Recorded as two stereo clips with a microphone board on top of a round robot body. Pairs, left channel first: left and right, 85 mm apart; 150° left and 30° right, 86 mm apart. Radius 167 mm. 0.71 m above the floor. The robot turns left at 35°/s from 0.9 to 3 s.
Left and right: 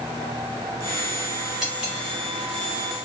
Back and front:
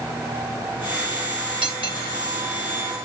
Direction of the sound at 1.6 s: 5° right.